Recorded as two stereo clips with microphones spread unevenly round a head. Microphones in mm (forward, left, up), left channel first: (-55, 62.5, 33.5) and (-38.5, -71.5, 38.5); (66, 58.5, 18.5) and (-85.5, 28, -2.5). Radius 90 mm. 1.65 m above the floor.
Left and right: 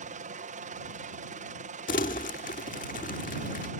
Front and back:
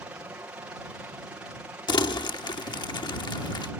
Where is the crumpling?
60° left.